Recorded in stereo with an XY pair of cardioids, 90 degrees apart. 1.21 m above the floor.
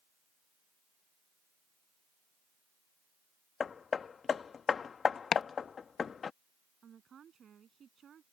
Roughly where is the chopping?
Ahead left.